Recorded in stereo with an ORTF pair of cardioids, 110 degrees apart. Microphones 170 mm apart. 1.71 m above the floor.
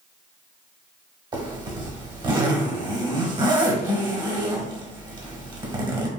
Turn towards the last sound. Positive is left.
turn(degrees=-25)